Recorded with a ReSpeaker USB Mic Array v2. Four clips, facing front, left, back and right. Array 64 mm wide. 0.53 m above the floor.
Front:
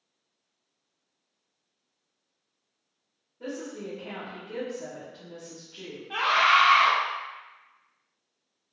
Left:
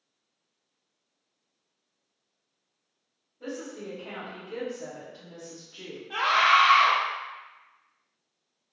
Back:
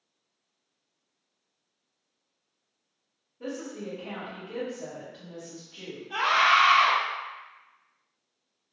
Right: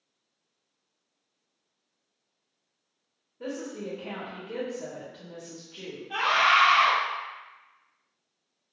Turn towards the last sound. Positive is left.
turn(degrees=5)